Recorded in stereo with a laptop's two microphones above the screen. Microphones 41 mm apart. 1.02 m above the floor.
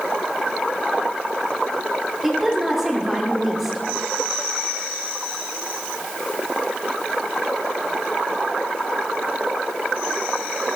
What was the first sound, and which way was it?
A woman speaking, 10° right (ahead or behind).